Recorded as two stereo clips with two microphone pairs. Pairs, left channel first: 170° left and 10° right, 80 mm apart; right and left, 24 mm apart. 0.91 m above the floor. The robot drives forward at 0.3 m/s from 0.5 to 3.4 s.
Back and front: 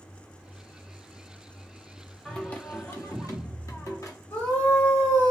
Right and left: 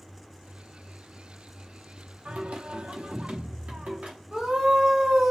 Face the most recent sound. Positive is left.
turn(degrees=125)